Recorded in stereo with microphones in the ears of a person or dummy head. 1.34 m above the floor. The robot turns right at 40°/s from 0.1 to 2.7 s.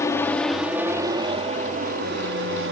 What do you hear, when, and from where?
0.0 s an aircraft: 15° left (ahead or behind); by 2.7 s 65° right (ahead or behind)